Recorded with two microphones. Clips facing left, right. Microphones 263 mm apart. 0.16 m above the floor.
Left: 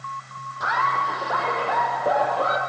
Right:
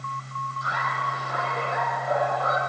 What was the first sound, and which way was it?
Laughter, 80° left.